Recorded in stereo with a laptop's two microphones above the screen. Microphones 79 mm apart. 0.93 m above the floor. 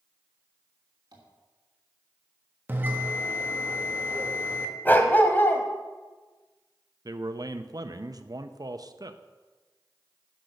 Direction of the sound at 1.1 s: 60° right (ahead or behind).